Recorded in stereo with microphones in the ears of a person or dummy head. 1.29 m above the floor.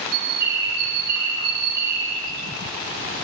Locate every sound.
0.1 s a bird: 55° right (ahead or behind), 5.5 m